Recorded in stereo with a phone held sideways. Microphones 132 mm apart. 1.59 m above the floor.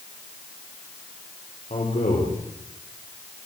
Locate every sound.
1.7 s a man speaking: 65° left (ahead or behind), 5 m